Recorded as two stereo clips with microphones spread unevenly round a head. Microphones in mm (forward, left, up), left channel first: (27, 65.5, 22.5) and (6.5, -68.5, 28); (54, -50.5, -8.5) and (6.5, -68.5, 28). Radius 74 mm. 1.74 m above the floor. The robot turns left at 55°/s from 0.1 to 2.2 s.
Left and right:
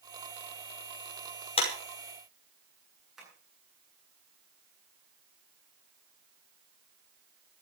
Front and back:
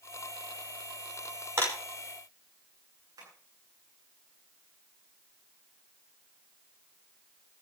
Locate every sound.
1.6 s a clap: 135° left, 5.5 m; by 1.7 s 130° left, 5.5 m
3.2 s tapping: 175° left, 9 m